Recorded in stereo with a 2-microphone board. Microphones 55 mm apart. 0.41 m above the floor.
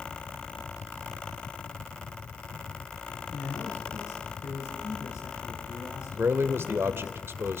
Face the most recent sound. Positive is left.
turn(degrees=-45)  # may be behind; listen again after turning